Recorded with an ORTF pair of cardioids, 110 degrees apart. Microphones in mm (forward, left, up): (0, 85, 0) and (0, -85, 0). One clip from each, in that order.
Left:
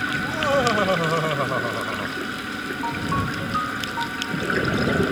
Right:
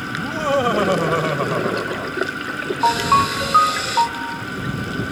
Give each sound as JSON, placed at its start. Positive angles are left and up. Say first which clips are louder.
{"t": 0.1, "sound": "laughter", "louder": "right 4 dB", "azimuth_deg": -15}
{"t": 2.8, "sound": "a ringtone", "louder": "right 12 dB", "azimuth_deg": -65}